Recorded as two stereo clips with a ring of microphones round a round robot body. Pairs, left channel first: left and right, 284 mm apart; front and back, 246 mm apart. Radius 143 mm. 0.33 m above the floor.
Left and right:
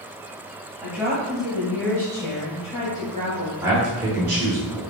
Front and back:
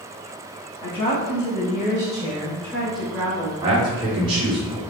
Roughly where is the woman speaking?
Ahead.